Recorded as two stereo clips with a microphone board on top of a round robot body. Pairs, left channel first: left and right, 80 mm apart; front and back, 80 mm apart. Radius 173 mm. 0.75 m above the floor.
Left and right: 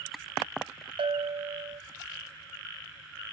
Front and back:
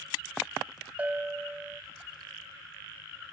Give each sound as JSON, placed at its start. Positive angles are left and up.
{"t": 1.0, "sound": "a bell", "azimuth_deg": -105, "distance_m": 1.6}